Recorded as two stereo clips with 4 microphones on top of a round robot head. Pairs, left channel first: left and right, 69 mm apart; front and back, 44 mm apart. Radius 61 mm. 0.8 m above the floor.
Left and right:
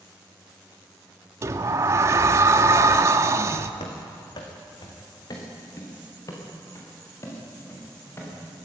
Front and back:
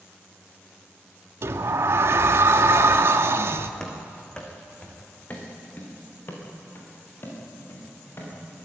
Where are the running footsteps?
80° left, 4 m; by 8.3 s 35° left, 9 m.